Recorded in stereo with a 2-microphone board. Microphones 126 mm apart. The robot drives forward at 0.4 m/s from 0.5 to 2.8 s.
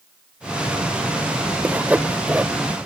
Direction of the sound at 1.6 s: 15° right (ahead or behind).